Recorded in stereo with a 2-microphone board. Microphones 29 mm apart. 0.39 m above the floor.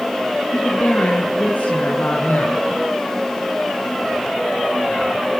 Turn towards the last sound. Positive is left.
turn(degrees=75)  # may be behind; listen again after turning